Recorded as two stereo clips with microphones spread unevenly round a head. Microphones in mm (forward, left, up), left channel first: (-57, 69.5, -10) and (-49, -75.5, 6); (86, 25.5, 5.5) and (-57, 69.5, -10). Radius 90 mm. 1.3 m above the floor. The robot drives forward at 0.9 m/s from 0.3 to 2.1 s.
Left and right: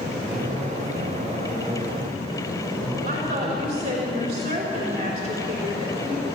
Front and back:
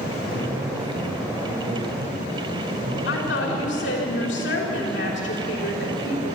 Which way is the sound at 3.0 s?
30° right.